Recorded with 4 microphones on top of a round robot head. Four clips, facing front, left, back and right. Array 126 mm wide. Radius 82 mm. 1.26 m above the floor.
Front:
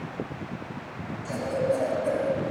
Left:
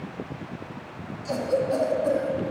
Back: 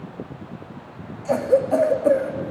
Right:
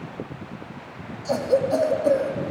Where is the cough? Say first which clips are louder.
Right 4 dB, back 8 dB; 165° right, 2 m.